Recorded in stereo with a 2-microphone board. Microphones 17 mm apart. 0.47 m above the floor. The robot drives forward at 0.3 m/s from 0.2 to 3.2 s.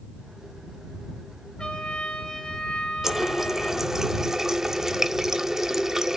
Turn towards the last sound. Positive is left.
turn(degrees=-25)  # may be behind; listen again after turning